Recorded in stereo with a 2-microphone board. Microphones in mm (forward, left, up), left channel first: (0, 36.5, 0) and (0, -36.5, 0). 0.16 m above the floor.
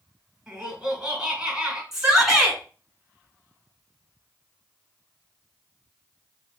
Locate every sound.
0.5 s laughter: 10° right (ahead or behind), 1.5 m
1.9 s a shout: 5° right (ahead or behind), 2 m